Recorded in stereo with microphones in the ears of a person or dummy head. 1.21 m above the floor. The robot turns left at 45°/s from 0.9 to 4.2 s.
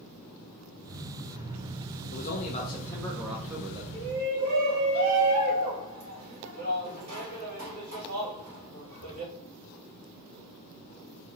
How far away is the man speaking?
About 0.6 m.